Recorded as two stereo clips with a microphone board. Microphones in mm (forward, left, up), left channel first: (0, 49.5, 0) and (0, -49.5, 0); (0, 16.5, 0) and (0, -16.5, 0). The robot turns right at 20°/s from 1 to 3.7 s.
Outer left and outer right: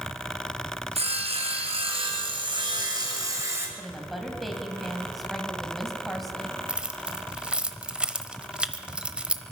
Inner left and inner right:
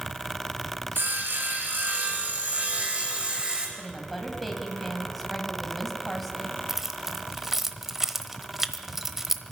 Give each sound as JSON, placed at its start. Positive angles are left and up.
{"t": 0.9, "sound": "sawing", "azimuth_deg": -80, "distance_m": 3.0}
{"t": 3.8, "sound": "a woman speaking", "side_deg": 0, "distance_m": 1.9}
{"t": 6.7, "sound": "keys jangling", "side_deg": -10, "distance_m": 0.8}